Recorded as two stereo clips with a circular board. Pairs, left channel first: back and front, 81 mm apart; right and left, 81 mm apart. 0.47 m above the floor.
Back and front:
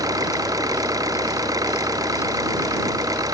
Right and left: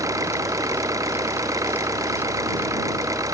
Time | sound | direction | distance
0.0 | an engine running | 45° left | ?